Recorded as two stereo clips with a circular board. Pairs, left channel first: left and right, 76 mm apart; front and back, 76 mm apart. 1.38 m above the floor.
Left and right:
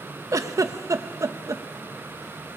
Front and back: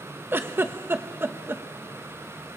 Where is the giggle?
125° right, 0.9 m.